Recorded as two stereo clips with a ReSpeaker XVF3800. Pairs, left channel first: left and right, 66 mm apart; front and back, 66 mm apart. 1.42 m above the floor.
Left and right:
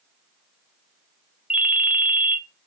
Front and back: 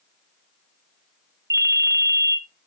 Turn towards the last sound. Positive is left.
turn(degrees=-165)